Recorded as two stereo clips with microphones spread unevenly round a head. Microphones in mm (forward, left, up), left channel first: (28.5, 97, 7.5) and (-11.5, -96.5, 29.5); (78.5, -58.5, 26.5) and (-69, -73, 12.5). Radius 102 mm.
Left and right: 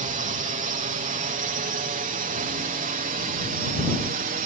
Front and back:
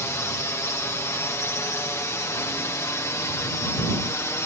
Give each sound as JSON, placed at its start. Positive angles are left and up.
{"t": 0.0, "sound": "a drone", "azimuth_deg": -60}